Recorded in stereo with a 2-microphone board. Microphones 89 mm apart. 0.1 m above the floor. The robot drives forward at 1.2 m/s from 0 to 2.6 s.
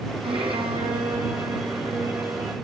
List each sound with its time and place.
0.2 s a violin: 75° right (ahead or behind), 2 m; by 2.5 s 35° right (ahead or behind), 3.5 m